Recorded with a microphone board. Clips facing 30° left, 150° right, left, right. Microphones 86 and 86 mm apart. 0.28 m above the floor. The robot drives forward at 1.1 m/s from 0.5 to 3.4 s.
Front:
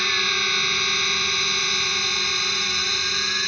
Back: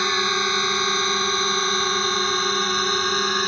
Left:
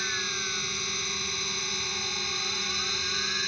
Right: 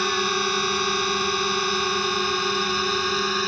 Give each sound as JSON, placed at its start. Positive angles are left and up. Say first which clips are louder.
{"t": 0.0, "sound": "a drone", "louder": "back 4 dB, right 11 dB", "azimuth_deg": -90}